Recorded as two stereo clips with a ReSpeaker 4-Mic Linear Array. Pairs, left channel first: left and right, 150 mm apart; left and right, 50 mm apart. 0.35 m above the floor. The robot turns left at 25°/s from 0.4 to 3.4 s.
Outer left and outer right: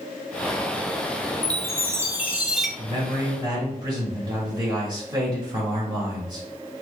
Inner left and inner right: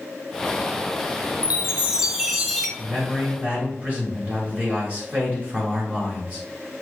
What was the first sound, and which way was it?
A chime, 150° right.